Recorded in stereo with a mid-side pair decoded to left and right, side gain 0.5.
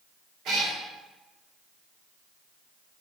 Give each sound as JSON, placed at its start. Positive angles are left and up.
{"t": 0.5, "sound": "a cat meowing", "azimuth_deg": -70, "distance_m": 2.0}